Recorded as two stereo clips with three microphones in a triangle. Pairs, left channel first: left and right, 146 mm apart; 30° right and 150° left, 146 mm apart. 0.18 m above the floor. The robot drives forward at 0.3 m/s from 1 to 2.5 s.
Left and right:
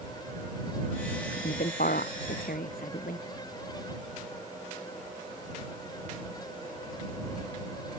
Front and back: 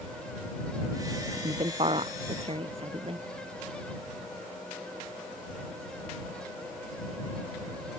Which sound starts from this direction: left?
A woman speaking, at 1.3 s.